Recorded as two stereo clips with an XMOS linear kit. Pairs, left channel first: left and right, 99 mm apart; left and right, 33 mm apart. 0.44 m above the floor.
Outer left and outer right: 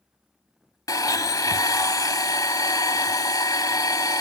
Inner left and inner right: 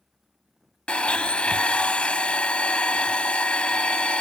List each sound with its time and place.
0.9 s a blender: 40° left (ahead or behind), 1.0 m